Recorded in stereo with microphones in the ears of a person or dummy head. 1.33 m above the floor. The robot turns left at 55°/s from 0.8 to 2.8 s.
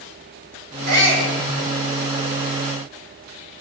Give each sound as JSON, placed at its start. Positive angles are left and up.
{"t": 0.9, "sound": "a shout", "side_deg": -55, "distance_m": 7.0}